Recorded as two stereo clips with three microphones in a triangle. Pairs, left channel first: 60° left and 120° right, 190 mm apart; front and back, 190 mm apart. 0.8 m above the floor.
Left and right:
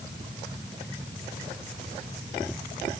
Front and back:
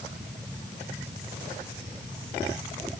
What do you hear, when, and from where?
Only background noise.